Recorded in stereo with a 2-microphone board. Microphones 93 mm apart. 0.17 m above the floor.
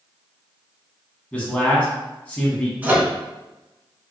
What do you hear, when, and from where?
1.3 s a man speaking: 15° left (ahead or behind), 1.2 m
2.8 s a microwave: 20° right (ahead or behind), 1.3 m